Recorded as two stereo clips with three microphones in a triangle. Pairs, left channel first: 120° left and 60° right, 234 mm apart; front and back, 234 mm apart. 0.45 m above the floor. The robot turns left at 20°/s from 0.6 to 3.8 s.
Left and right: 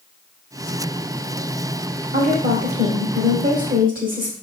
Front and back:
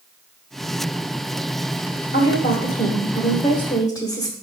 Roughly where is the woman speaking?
Ahead right.